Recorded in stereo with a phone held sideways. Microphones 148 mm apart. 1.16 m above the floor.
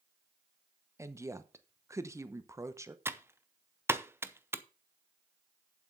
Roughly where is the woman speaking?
Centre.